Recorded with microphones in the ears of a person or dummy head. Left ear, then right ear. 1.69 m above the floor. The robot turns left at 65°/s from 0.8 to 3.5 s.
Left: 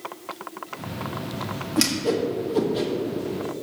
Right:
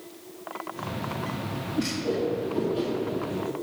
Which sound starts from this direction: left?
A whoosh, at 1.8 s.